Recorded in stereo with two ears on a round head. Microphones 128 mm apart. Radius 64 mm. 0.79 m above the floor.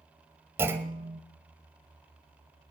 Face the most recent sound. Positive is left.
turn(degrees=-15)  # may be behind; listen again after turning